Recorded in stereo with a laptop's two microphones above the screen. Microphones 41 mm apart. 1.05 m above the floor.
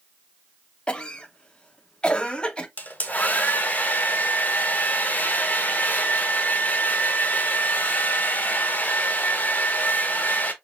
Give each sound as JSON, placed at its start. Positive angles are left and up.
{"t": 0.9, "sound": "a cough", "side_deg": 25, "distance_m": 0.9}
{"t": 2.8, "sound": "a hair dryer", "side_deg": 40, "distance_m": 0.9}